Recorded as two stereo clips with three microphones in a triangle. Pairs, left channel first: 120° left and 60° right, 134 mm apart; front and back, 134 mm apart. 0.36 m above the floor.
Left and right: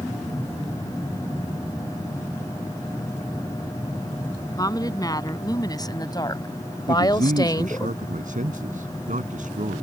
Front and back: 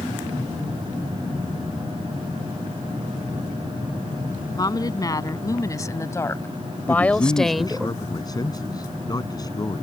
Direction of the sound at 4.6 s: 60° left.